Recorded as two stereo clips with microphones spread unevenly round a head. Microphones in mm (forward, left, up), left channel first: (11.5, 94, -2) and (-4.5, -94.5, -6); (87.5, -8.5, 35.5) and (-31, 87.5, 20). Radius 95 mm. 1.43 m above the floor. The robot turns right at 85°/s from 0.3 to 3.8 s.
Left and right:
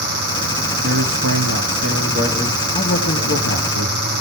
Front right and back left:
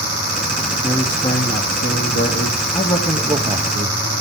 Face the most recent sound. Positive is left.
turn(degrees=110)